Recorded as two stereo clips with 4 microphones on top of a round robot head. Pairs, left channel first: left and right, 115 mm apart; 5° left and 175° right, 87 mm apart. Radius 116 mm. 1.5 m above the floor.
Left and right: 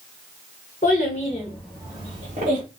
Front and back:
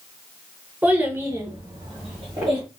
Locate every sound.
0.8 s a child speaking: 115° left, 0.7 m; by 2.6 s 115° right, 0.8 m